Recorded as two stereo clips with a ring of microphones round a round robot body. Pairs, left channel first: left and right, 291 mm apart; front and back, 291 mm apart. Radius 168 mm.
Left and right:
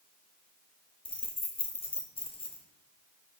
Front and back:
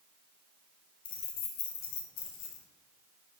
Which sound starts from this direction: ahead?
Keys jangling, at 1.1 s.